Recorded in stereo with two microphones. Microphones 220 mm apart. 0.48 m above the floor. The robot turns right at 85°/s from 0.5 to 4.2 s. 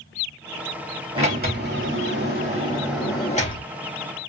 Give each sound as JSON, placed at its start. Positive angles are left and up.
{"t": 1.1, "sound": "a sliding door", "azimuth_deg": -155, "distance_m": 3.0}